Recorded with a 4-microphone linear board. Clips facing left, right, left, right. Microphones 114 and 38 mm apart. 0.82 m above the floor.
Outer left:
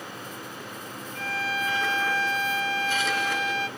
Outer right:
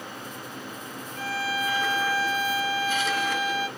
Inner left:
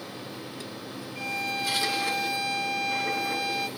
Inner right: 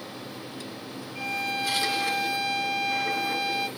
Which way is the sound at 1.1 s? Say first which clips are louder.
Outer right 1 dB, inner right 1 dB; 10° right (ahead or behind).